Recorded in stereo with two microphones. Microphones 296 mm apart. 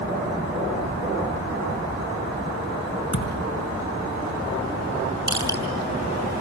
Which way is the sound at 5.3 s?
85° right.